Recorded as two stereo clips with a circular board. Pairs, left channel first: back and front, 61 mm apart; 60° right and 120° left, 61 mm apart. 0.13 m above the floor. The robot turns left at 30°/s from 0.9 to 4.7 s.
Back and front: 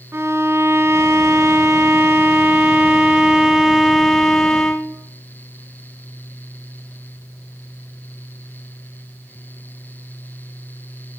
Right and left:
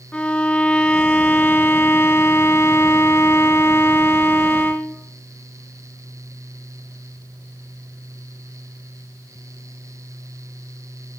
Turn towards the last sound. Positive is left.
turn(degrees=-110)